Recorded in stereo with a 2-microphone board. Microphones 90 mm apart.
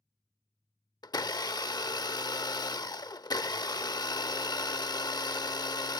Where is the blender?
45° left (ahead or behind).